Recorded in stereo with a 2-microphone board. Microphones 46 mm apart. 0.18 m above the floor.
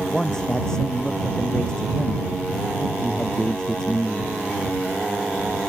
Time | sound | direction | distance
0.1 | a man speaking | 15° left (ahead or behind) | ?